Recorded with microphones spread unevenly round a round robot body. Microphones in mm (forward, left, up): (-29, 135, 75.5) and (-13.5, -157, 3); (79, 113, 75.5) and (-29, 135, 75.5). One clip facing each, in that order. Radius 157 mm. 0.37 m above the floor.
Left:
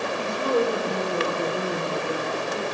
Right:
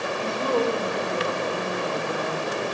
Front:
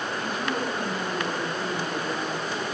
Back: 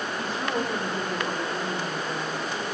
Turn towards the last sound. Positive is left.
turn(degrees=45)